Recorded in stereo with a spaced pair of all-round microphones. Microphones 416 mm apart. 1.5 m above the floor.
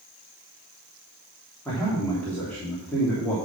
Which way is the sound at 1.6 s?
5° left (ahead or behind).